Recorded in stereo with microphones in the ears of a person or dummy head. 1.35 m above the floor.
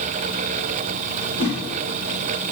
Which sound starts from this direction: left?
A whoosh, at 1.4 s.